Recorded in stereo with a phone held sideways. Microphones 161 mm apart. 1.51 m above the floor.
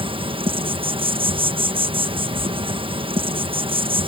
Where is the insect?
35° right (ahead or behind).